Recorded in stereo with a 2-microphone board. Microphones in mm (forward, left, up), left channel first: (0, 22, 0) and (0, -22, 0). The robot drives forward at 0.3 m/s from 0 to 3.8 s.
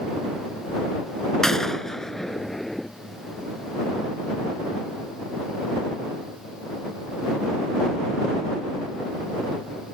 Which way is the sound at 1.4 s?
15° left (ahead or behind).